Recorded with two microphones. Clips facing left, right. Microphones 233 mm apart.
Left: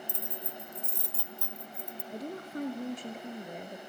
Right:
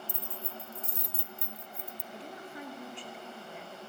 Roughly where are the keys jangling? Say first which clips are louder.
Left 1 dB; right.